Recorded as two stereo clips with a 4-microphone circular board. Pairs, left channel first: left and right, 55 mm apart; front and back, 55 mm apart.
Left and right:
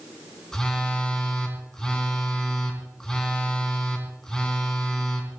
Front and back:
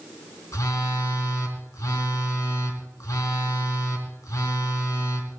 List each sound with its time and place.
0.5 s a phone buzzing: 10° left, 2.5 m